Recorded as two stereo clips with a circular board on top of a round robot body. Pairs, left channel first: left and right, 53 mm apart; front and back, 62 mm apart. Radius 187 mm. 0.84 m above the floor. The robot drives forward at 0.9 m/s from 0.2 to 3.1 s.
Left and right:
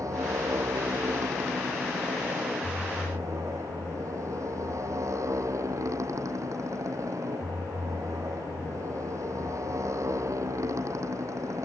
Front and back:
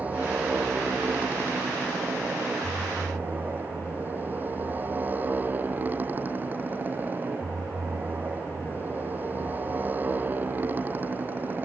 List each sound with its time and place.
0.0 s a motorcycle: 115° right; by 11.7 s 120° right